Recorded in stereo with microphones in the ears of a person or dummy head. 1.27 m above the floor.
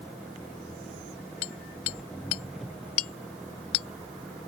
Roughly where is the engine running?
Centre.